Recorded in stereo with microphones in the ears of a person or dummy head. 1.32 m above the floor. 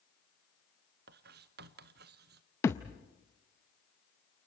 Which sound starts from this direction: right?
Writing, at 1.1 s.